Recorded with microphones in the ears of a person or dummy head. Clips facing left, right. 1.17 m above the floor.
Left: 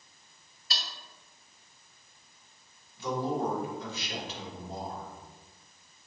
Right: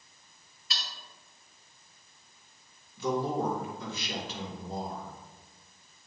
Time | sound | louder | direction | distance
0.7 | cutlery clinking | left 2 dB | 35° left (ahead or behind) | 1.4 m
3.0 | a man speaking | right 1 dB | 70° right (ahead or behind) | 2.5 m